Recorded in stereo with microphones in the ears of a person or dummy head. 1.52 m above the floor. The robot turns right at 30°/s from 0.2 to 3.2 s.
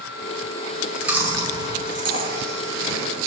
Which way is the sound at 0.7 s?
Straight behind.